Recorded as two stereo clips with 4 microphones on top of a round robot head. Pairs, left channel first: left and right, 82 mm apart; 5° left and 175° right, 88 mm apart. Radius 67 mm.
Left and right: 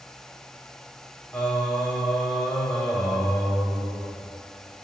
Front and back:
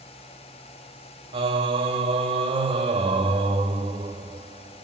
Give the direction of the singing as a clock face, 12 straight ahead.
6 o'clock.